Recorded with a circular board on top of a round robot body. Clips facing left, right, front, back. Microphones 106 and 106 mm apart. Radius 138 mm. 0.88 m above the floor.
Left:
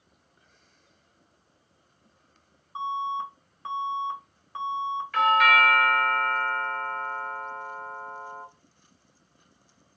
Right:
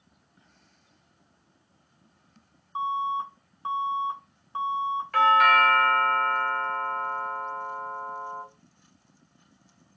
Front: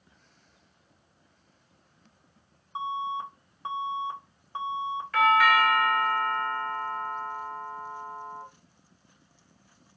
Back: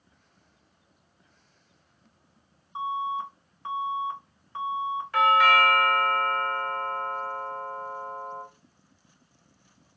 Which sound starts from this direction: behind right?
A doorbell, at 5.1 s.